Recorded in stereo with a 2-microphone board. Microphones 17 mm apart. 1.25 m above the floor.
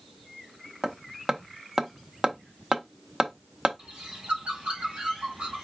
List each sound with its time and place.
0.8 s hammering: 35° right (ahead or behind), 0.9 m
3.8 s a bird: 85° right, 4 m